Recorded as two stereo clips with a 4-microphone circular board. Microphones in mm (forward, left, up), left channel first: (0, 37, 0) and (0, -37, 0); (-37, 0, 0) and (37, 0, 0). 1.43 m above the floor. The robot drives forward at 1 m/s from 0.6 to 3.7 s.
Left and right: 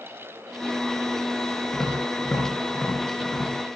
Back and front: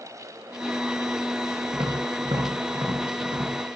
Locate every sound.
1.7 s tapping: 15° left, 8.5 m; by 3.5 s 20° left, 7 m